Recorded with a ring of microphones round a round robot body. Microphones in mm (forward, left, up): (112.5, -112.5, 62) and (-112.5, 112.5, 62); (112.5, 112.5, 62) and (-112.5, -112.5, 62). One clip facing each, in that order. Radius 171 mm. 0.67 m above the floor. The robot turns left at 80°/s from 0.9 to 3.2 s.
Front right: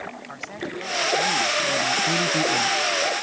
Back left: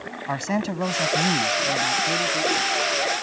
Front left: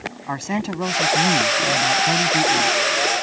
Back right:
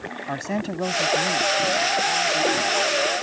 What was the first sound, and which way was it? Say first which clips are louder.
A man speaking: back left 9 dB, front left 2 dB; 125° left.